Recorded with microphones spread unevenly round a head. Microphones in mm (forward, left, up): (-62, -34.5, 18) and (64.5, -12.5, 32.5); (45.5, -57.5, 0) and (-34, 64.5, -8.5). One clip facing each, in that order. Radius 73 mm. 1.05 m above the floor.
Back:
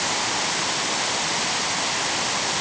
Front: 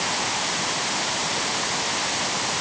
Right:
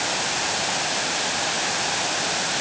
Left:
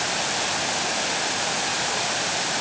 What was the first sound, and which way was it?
Only background noise.